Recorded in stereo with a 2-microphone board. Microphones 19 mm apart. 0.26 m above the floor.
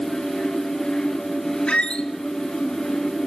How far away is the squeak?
About 0.5 m.